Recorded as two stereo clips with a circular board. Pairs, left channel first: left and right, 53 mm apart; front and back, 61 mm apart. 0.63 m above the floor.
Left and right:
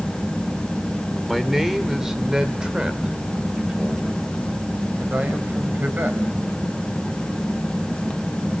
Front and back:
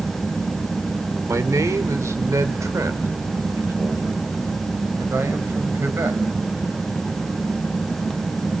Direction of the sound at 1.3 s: Straight behind.